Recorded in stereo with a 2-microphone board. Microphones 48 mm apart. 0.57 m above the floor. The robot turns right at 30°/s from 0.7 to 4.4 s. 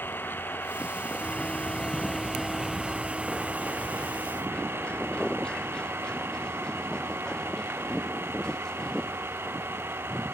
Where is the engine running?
130° left; by 10.3 s 115° right.